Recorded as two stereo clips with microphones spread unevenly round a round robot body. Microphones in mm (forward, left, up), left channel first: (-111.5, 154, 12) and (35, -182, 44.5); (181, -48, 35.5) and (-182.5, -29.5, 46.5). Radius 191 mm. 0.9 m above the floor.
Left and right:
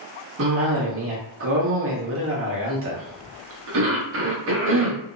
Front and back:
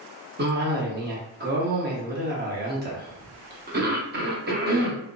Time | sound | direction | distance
0.4 | a cough | 120° right | 1.0 m